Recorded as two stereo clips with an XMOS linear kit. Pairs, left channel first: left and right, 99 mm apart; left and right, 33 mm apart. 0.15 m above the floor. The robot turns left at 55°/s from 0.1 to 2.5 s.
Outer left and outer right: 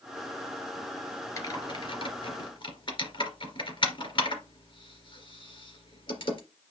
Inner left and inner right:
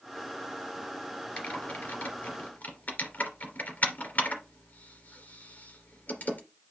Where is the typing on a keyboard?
30° left (ahead or behind), 2.5 m; by 6.4 s 60° left (ahead or behind), 2.5 m.